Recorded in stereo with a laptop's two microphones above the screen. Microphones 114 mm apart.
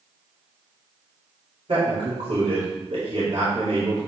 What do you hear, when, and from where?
1.7 s a man speaking: 60° right (ahead or behind), 3 m